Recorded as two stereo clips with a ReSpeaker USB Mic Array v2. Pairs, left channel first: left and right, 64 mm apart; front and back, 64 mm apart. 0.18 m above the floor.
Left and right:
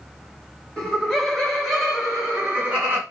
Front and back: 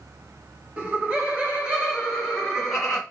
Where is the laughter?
155° left, 1.6 m; by 3.0 s 90° right, 1.5 m.